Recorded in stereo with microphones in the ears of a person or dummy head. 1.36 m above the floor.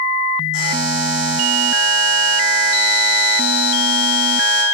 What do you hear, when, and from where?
0.5 s a buzzer: 70° left (ahead or behind), 2.5 m